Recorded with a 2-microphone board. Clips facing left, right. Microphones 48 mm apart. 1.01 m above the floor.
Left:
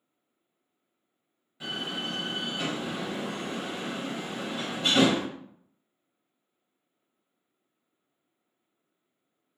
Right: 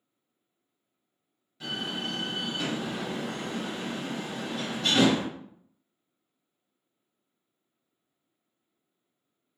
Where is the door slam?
15° left (ahead or behind), 1.5 m.